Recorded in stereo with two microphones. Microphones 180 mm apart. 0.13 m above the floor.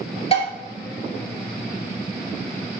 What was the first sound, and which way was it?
Dishes clattering, 35° left (ahead or behind).